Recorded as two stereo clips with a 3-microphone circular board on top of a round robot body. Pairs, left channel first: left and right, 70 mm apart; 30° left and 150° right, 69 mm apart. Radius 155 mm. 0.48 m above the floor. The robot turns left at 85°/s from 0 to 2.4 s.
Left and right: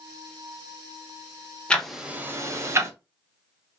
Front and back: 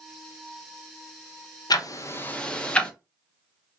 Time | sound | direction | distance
1.7 | ticking | 15° left | 0.6 m